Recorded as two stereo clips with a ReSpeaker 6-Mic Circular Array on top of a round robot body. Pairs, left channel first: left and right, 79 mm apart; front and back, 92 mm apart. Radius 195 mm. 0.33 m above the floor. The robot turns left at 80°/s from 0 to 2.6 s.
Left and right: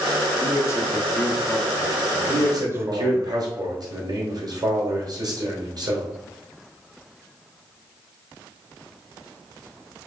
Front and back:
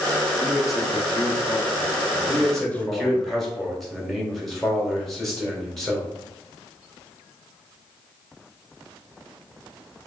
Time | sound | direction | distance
0.4 | a man speaking | 115° left | 0.9 m
2.3 | a man speaking | 60° right | 1.6 m